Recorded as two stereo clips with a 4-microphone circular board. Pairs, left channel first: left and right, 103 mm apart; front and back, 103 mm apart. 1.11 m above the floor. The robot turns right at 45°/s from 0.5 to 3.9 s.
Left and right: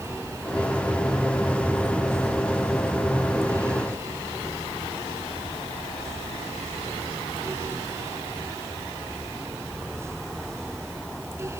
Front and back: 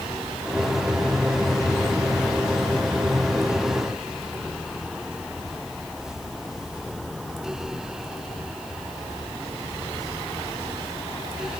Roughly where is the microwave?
No microwave in this recording.